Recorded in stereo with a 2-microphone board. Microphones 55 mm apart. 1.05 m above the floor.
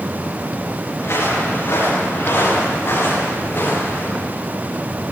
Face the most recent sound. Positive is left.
turn(degrees=45)  # may be behind; listen again after turning